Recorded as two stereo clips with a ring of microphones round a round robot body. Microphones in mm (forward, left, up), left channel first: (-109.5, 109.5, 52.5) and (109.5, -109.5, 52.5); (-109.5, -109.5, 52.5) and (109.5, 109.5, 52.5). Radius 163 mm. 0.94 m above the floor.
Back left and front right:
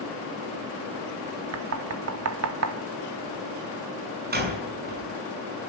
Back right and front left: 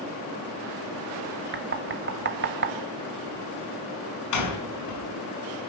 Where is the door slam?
105° right, 6 m.